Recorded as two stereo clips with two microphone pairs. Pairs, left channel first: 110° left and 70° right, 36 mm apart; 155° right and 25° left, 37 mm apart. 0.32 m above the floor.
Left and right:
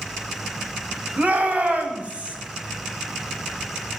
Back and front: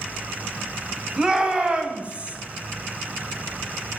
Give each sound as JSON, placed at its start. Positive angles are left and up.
{"t": 1.2, "sound": "a shout", "azimuth_deg": -45, "distance_m": 2.5}